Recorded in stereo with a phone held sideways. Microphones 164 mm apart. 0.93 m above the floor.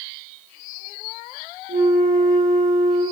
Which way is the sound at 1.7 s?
65° right (ahead or behind).